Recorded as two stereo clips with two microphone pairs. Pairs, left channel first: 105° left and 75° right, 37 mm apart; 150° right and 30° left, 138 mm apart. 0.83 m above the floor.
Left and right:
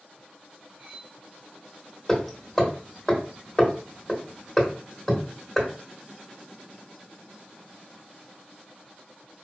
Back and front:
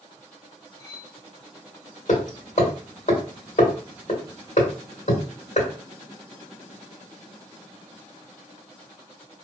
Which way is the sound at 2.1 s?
175° right.